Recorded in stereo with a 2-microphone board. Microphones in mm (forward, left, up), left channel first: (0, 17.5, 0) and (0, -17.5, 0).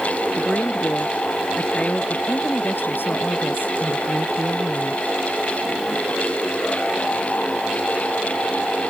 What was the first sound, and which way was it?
A woman speaking, 30° left (ahead or behind).